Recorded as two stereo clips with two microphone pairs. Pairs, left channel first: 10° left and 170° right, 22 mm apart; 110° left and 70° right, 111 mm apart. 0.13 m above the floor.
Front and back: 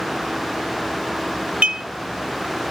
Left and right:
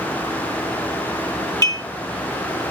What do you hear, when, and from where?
1.6 s dishes clattering: 160° left, 1.8 m